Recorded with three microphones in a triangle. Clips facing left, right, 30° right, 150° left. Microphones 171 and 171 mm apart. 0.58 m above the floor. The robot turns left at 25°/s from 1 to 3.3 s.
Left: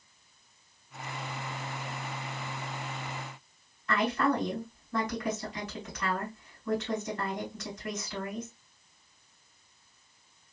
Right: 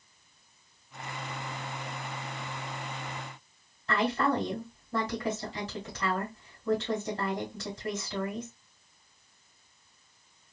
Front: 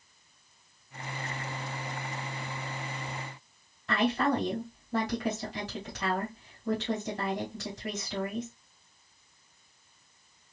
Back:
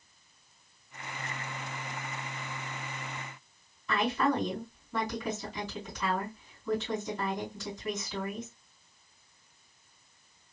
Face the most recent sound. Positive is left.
turn(degrees=-30)